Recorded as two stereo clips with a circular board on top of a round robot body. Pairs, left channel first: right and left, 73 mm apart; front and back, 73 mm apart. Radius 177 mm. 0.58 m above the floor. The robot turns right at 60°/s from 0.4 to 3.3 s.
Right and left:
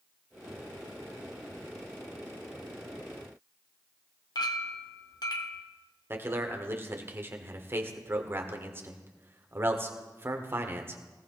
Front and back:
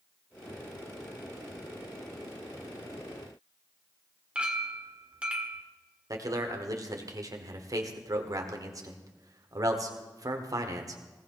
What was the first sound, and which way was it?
A clink, 105° right.